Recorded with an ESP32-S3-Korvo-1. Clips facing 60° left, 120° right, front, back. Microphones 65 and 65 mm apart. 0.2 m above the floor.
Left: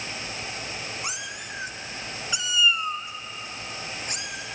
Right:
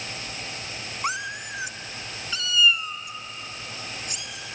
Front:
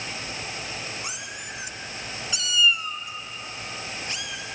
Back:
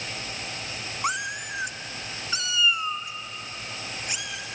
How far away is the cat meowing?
About 0.9 m.